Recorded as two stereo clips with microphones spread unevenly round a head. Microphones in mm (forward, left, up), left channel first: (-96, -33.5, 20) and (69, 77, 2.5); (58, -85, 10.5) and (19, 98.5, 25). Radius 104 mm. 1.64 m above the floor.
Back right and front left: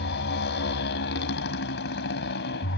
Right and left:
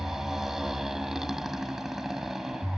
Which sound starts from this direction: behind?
A motorcycle, at 0.0 s.